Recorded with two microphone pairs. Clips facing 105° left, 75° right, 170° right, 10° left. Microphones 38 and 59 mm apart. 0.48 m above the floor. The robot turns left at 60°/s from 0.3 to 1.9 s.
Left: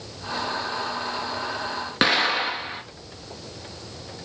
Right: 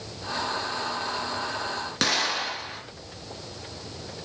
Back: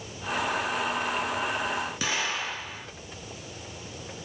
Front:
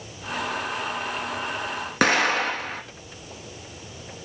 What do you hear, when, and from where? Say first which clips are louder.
2.0 s an explosion: left 6 dB, front 9 dB; 45° left, 1.9 m